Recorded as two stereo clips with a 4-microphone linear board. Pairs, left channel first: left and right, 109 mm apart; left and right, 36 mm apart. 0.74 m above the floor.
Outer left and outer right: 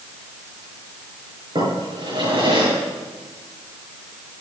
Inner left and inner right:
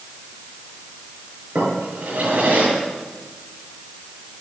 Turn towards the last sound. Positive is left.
turn(degrees=-50)  # may be behind; listen again after turning